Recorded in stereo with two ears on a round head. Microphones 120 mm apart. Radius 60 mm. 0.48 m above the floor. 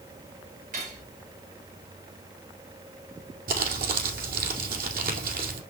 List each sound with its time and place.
0.7 s cutlery clinking: 65° right (ahead or behind), 5.5 m
3.5 s crumpling: 70° right (ahead or behind), 2.5 m